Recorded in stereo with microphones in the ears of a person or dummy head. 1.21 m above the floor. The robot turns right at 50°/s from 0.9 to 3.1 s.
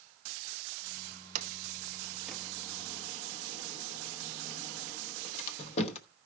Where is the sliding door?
45° right (ahead or behind), 1.0 m; by 6.0 s 40° left (ahead or behind), 1.0 m.